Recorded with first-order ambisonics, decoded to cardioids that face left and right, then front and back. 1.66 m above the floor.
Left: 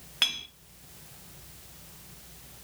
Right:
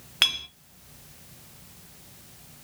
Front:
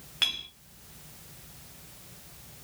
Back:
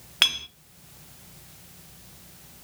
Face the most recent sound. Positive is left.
turn(degrees=-145)